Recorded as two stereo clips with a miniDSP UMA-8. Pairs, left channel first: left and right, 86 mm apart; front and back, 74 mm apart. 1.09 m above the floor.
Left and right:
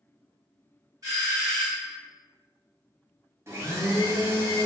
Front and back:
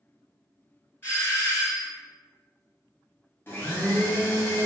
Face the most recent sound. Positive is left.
turn(degrees=-45)